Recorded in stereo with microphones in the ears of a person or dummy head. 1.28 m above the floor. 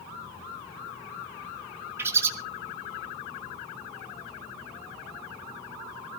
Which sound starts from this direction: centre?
A bird, at 2.0 s.